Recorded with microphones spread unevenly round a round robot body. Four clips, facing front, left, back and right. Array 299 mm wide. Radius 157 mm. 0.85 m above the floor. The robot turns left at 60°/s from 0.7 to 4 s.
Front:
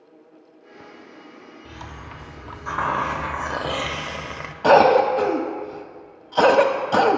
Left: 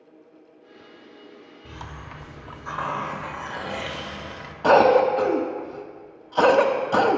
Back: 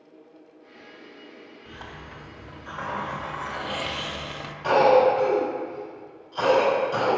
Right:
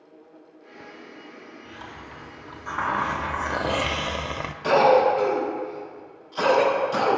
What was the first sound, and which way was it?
A hiss, 60° left.